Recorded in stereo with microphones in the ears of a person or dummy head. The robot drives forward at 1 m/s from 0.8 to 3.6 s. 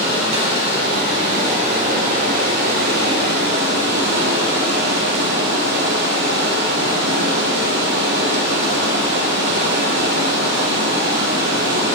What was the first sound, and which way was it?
Running water, 40° right (ahead or behind).